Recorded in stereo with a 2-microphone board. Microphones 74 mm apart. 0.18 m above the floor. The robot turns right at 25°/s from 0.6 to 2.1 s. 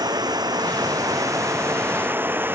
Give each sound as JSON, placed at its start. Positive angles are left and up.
{"t": 0.0, "sound": "running water", "azimuth_deg": -65}